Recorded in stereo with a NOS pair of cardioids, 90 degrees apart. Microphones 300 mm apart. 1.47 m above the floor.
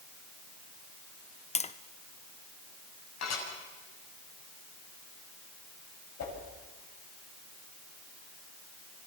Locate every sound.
1.6 s tapping: 20° left, 0.9 m
3.2 s dishes clattering: 65° left, 8 m
6.2 s a whoosh: 60° left, 9 m